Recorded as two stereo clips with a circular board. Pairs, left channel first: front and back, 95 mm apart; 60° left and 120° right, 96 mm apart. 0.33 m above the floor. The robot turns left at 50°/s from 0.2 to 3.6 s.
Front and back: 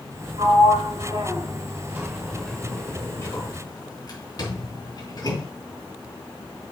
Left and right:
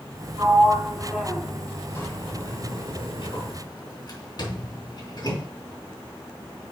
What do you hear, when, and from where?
0.4 s a sliding door: 170° right, 2.5 m; by 5.5 s 30° left, 2.5 m